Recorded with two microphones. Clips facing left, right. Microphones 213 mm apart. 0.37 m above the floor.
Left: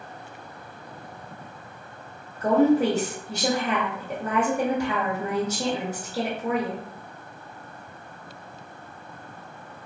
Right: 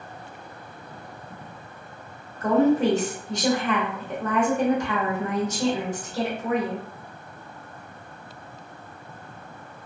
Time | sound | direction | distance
2.4 | a woman speaking | 10° left (ahead or behind) | 0.9 m